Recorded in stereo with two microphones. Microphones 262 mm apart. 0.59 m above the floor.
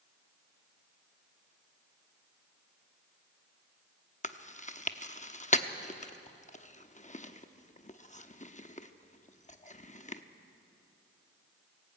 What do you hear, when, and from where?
4.2 s chewing: 30° left (ahead or behind), 0.8 m